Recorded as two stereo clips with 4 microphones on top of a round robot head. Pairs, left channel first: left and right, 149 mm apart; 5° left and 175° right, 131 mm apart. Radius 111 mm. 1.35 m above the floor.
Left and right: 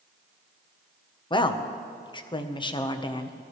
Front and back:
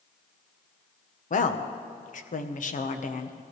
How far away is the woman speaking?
About 1.1 m.